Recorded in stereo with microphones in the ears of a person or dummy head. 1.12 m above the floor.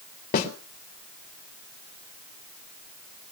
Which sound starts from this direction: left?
A snare drum, at 0.3 s.